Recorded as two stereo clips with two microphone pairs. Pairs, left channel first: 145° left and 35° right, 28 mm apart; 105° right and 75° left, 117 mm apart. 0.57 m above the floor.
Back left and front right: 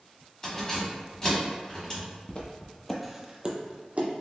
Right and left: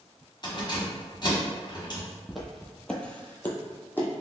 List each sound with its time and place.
0.4 s keys jangling: 150° right, 1.1 m
2.3 s footsteps: 160° left, 0.8 m; by 4.1 s 40° right, 0.9 m